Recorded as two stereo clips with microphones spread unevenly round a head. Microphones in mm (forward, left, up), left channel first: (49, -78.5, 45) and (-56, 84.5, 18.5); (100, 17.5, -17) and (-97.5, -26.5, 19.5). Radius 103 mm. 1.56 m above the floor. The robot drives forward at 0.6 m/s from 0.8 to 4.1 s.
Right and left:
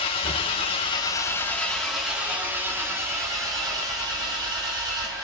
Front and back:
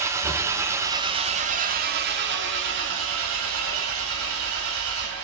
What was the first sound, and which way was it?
An engine running, 105° right.